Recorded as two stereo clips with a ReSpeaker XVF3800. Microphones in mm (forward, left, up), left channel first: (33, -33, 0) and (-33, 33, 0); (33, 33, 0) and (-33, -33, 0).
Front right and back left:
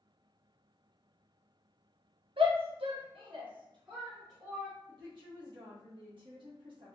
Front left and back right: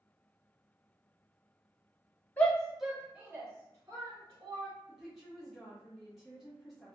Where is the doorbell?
I don't hear a doorbell.